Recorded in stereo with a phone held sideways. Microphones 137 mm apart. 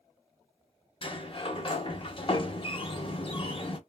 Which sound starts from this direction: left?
A sliding door, at 1.0 s.